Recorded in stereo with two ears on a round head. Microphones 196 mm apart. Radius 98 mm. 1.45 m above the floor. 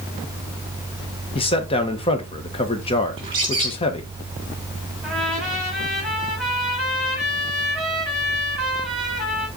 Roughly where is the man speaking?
Left.